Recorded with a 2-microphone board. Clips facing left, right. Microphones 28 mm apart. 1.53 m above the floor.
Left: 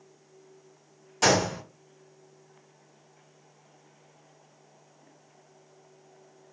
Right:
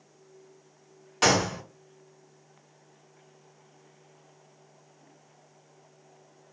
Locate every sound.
1.2 s a gunshot: 35° right (ahead or behind), 1.7 m